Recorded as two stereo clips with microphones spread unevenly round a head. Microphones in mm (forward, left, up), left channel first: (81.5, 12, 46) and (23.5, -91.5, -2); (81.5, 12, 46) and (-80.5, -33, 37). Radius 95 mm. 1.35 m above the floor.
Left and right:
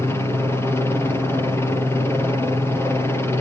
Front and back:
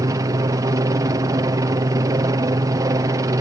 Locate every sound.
0.0 s a helicopter: 160° left